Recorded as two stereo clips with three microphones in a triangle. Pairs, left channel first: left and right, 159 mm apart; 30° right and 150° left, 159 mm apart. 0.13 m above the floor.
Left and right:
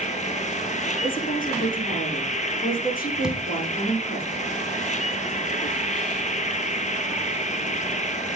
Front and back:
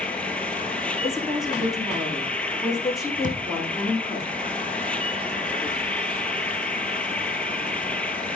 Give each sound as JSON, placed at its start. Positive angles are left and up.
{"t": 0.0, "sound": "an insect", "azimuth_deg": 50, "distance_m": 1.2}
{"t": 1.0, "sound": "a woman speaking", "azimuth_deg": 60, "distance_m": 7.0}
{"t": 3.2, "sound": "a thud", "azimuth_deg": -175, "distance_m": 3.0}